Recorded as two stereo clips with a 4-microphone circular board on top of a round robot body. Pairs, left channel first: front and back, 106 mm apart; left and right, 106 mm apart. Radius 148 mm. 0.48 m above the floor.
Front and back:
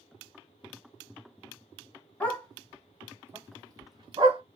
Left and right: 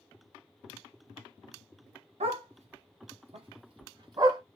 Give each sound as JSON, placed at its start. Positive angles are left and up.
{"t": 2.2, "sound": "a dog barking", "azimuth_deg": -75, "distance_m": 1.2}